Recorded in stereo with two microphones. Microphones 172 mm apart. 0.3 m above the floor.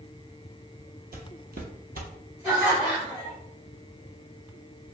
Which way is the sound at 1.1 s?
70° right (ahead or behind).